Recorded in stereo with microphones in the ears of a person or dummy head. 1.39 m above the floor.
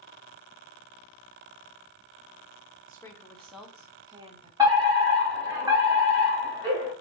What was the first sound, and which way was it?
A woman speaking, 25° left (ahead or behind).